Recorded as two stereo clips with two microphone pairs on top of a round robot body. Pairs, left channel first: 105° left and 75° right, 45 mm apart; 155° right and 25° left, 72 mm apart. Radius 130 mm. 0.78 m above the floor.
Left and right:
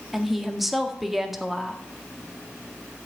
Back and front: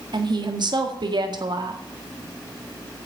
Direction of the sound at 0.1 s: 15° left.